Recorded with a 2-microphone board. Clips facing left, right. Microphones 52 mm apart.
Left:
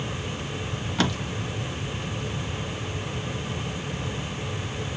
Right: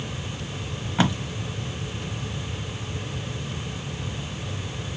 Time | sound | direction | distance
1.0 | tape being pulled | 20° right (ahead or behind) | 1.1 m